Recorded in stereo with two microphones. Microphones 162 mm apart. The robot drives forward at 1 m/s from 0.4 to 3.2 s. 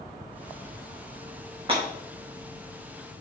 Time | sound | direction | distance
1.7 | breaking glass | 35° right (ahead or behind) | 4.5 m